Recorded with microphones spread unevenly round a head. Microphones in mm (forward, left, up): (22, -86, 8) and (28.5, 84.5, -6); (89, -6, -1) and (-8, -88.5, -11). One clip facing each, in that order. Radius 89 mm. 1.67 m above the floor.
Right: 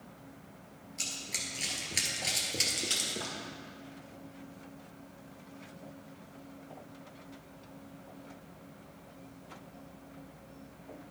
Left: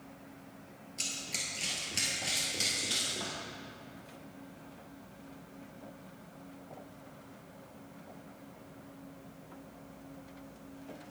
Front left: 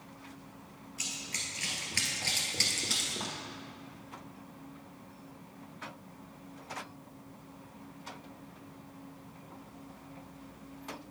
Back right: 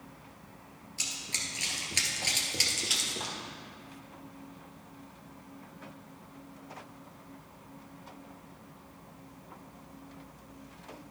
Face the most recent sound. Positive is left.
turn(degrees=-55)